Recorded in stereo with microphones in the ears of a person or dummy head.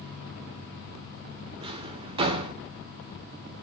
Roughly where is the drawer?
Right.